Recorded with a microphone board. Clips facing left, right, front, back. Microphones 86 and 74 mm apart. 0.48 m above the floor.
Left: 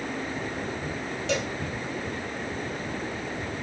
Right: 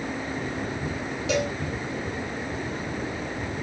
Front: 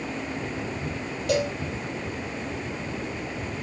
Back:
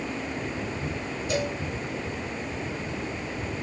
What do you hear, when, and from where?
1.3 s a cowbell: 5° right, 3 m